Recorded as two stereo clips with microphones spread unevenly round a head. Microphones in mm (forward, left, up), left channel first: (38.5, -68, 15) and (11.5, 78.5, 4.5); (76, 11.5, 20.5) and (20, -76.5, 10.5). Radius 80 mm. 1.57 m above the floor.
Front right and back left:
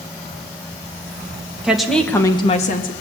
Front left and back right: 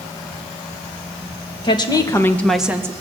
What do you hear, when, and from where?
1.6 s a woman speaking: 15° left, 1.8 m; by 2.9 s 60° right, 1.2 m